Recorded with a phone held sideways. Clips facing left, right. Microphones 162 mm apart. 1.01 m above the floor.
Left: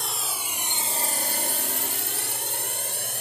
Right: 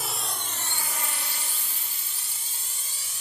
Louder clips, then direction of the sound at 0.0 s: Even; 5° right (ahead or behind).